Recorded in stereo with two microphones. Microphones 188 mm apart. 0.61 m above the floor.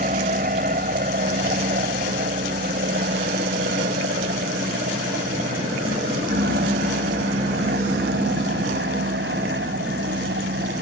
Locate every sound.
0.0 s an aircraft: 45° right (ahead or behind); by 10.8 s 75° right (ahead or behind)